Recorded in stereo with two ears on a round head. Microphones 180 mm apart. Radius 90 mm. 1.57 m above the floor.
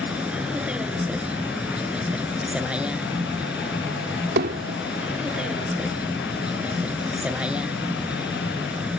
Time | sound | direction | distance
0.0 | a vehicle | 5° right (ahead or behind) | ?
4.4 | hammering | 50° right (ahead or behind) | ?